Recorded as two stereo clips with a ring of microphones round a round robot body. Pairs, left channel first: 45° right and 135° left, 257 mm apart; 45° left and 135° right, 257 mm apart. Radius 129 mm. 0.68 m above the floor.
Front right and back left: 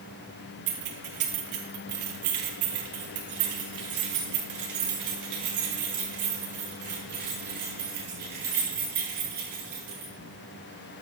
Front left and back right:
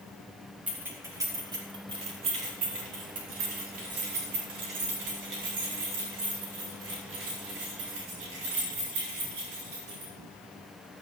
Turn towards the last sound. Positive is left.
turn(degrees=-170)